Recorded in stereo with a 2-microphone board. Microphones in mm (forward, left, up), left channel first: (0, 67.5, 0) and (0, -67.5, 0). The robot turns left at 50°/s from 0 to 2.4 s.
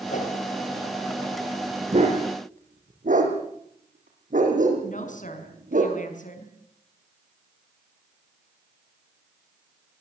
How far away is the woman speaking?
About 5 m.